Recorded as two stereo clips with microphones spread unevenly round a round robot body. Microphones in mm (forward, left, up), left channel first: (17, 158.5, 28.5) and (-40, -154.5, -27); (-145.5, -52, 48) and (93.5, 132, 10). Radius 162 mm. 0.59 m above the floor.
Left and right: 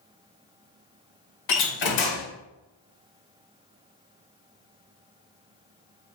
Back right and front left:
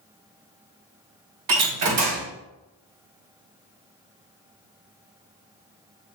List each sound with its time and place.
1.5 s a door slam: 60° left, 1.7 m